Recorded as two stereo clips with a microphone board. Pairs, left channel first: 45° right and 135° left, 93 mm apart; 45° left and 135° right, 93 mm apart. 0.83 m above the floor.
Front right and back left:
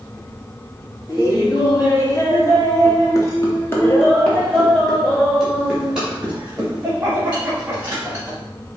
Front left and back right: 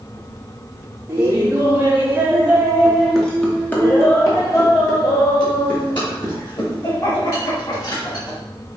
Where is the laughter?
85° right, 1.9 m; by 8.4 s 65° left, 3 m.